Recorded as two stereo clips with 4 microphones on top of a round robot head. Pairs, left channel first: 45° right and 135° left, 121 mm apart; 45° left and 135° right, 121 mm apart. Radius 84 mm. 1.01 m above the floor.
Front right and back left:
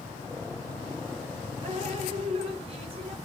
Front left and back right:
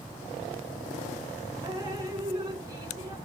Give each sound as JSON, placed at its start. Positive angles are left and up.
{"t": 1.6, "sound": "dripping", "azimuth_deg": 165, "distance_m": 0.9}